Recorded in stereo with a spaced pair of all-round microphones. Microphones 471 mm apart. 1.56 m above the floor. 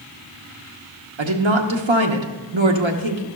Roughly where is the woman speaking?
Right.